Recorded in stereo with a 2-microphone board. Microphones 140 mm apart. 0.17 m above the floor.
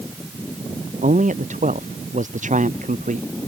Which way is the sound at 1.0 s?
70° right (ahead or behind).